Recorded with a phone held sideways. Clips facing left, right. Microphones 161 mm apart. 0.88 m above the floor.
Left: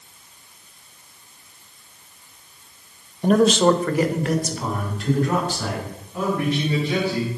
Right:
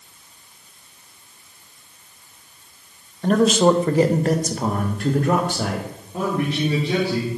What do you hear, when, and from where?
3.2 s a man speaking: 15° left (ahead or behind), 0.6 m; by 6.0 s 60° right (ahead or behind), 2.0 m
6.1 s a man speaking: 30° right (ahead or behind), 2.5 m